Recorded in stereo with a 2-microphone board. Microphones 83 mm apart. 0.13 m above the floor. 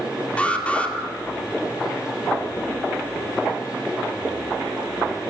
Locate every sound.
0.4 s an alarm: 15° left (ahead or behind), 2.5 m